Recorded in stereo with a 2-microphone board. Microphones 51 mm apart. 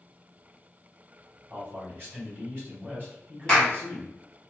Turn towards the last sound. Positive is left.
turn(degrees=15)  # may be behind; listen again after turning